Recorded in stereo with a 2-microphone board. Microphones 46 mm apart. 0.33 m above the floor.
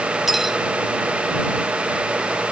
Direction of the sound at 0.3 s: 5° right (ahead or behind).